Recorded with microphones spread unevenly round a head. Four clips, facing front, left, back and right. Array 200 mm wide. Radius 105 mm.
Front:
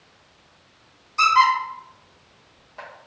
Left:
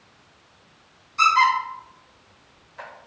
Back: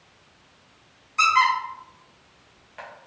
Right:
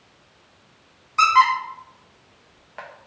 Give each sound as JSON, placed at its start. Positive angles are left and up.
{"t": 1.2, "sound": "a squeak", "azimuth_deg": -85, "distance_m": 0.7}